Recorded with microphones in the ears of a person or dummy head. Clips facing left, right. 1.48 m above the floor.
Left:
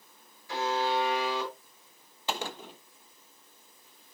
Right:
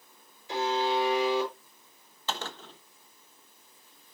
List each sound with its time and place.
0.5 s a buzzer: 20° right (ahead or behind), 6 m
2.3 s a gunshot: 10° left (ahead or behind), 0.9 m